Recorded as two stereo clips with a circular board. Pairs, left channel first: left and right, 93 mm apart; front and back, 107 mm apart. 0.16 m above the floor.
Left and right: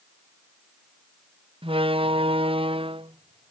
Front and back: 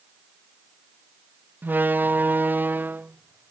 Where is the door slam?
105° right.